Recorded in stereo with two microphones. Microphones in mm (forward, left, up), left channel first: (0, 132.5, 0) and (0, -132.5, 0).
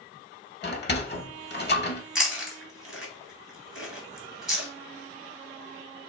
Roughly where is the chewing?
Centre.